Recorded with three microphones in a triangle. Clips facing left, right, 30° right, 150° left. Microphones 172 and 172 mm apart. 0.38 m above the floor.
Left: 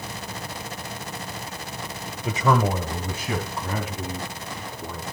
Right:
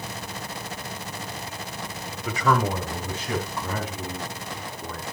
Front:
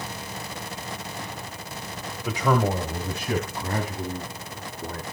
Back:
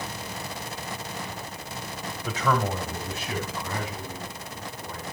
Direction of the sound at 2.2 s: 50° left.